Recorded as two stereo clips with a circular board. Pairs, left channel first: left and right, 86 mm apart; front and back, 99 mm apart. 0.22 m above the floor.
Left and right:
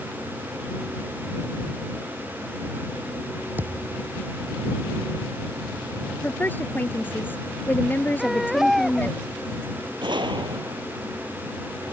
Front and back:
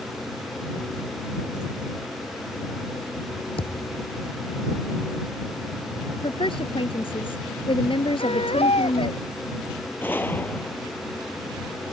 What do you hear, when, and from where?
3.6 s a thud: 20° right
6.2 s a woman speaking: 25° left
8.2 s a baby crying: straight ahead
10.0 s a gunshot: 70° right